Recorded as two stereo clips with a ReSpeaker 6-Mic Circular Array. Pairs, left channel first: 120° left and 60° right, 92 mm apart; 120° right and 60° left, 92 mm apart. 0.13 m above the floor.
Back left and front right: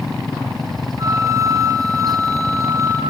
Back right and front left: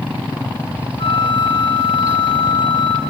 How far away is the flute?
About 2.5 m.